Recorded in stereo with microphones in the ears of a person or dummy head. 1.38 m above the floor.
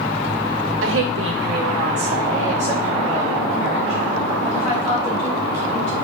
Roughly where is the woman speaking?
Right.